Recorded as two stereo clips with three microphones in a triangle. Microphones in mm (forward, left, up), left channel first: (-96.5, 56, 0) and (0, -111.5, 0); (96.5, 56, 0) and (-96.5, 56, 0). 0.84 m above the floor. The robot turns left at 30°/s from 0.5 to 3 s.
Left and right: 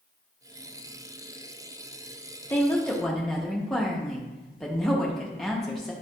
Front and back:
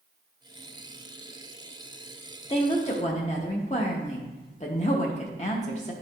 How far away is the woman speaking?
About 1.0 m.